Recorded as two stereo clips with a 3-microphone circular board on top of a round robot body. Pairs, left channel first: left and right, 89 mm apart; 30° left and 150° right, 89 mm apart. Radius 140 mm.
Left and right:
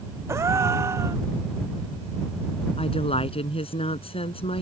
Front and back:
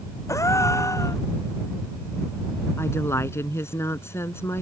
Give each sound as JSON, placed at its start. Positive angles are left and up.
{"t": 0.3, "sound": "a gasp", "azimuth_deg": -25}
{"t": 2.8, "sound": "a woman speaking", "azimuth_deg": 90}